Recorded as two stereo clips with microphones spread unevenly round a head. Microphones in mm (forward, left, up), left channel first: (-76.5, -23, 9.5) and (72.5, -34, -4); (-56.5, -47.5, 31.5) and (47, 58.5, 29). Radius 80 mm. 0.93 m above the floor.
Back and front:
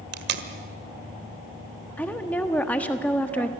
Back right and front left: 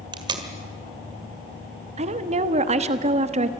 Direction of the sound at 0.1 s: 15° right.